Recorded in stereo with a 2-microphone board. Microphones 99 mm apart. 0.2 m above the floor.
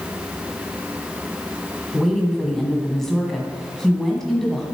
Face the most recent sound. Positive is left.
turn(degrees=5)  # may be behind; listen again after turning